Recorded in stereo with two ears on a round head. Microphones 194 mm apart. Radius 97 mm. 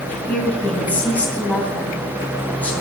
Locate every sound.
0.1 s a woman speaking: 10° left (ahead or behind), 2.5 m